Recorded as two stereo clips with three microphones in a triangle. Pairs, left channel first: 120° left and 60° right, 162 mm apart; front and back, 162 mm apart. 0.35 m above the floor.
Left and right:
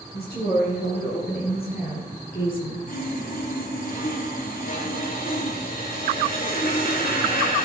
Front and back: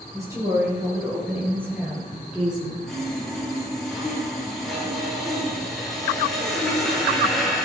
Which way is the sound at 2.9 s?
90° left.